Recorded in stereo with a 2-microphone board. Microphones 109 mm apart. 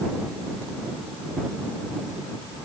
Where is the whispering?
I don't hear whispering.